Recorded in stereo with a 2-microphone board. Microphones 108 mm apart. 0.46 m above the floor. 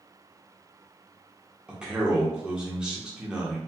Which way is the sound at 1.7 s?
10° right (ahead or behind).